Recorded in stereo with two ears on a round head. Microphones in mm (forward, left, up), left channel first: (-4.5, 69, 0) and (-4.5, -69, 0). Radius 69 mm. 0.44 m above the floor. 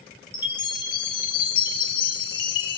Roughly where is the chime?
Left.